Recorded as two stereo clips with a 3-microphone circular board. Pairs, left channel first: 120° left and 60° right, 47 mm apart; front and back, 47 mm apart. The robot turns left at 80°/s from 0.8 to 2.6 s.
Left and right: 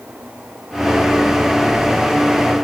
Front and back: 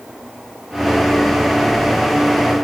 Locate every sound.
Only background noise.